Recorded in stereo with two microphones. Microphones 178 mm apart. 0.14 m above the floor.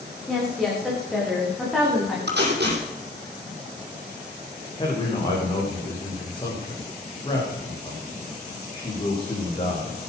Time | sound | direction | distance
0.3 | a woman speaking | centre (ahead or behind) | 9 m
2.3 | tape being pulled | 70° right (ahead or behind) | 6 m
4.8 | a man speaking | 30° left (ahead or behind) | 8.5 m